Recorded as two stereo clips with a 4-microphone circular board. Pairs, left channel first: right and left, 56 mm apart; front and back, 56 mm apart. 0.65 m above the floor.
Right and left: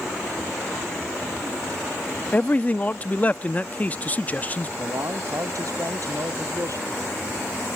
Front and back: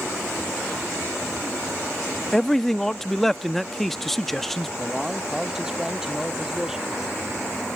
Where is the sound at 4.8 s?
100° left.